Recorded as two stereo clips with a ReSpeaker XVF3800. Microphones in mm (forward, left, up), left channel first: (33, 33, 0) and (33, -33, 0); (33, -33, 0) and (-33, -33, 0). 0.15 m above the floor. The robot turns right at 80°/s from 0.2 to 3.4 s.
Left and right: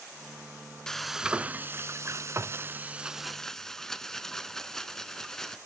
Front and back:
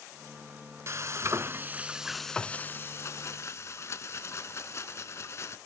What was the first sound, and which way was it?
Frying, 165° left.